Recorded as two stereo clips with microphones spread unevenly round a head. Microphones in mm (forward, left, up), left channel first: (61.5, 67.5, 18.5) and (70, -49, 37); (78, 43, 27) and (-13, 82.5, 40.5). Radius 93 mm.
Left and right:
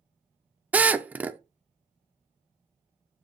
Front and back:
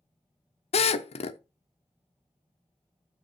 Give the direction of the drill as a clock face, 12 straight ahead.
12 o'clock.